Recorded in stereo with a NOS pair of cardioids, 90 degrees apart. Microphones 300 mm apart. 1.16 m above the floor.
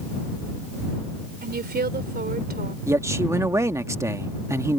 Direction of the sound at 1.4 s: 30° right.